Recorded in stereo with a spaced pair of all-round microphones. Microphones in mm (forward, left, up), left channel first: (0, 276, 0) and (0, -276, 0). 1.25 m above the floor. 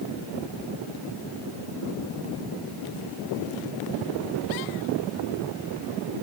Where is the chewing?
I don't hear chewing.